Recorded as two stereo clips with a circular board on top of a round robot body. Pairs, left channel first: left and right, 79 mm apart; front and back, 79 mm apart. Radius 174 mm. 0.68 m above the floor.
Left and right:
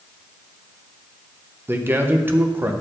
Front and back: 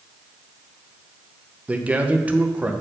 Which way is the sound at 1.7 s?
125° right.